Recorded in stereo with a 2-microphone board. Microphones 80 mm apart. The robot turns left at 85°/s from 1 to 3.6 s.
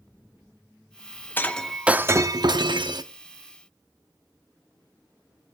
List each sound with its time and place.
1.4 s breaking glass: 30° left, 0.8 m; by 3.0 s 115° right, 0.8 m